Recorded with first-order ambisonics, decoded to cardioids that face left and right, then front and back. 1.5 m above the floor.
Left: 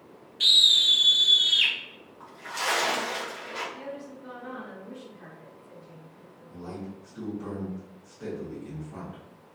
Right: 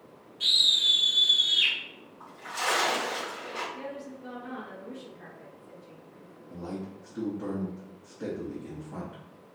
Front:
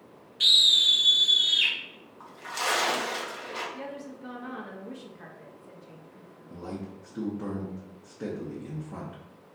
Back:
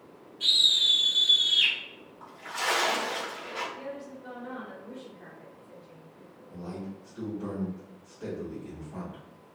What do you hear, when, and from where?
0.4 s a scream: 35° left, 0.6 m; by 1.7 s 75° left, 1.2 m
2.2 s a splash: 15° left, 1.1 m
3.7 s a woman speaking: 5° right, 0.7 m
6.5 s a man speaking: 20° right, 0.8 m